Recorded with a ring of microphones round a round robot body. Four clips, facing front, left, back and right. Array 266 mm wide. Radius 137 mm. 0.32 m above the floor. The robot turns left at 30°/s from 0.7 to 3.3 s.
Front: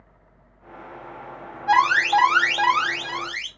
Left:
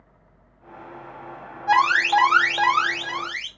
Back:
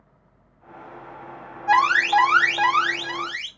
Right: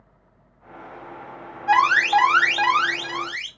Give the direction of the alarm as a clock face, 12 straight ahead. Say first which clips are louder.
Right 1 dB, even; 8 o'clock.